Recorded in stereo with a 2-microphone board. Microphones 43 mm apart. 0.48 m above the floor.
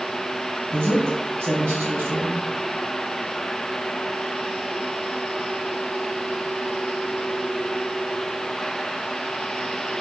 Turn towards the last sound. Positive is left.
turn(degrees=-65)  # may be behind; listen again after turning